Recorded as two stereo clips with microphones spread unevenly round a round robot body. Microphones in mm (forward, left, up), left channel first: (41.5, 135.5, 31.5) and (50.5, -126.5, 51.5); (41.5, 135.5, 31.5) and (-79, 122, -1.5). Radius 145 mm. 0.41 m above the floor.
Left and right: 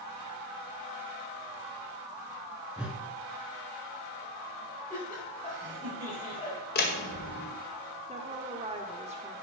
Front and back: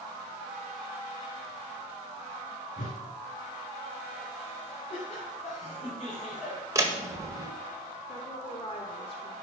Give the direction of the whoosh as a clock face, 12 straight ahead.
12 o'clock.